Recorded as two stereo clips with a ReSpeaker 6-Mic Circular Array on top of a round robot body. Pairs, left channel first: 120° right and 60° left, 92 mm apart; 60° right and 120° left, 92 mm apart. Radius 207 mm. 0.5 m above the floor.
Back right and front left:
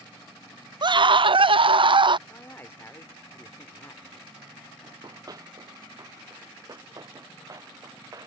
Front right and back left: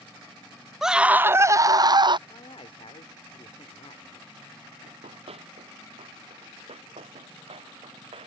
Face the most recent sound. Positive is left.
turn(degrees=115)